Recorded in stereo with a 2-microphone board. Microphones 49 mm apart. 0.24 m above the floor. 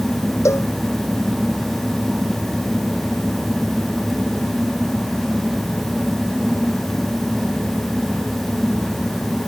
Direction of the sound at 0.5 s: 80° left.